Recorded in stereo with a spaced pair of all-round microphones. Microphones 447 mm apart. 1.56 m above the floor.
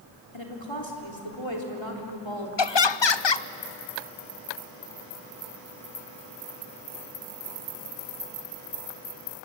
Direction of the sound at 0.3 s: 85° left.